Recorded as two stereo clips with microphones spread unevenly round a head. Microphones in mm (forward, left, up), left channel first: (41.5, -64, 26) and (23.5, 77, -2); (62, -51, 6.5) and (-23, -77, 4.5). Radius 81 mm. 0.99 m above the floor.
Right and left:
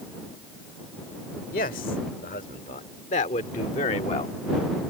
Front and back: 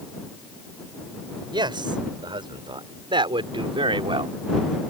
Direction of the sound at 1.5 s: 130° right.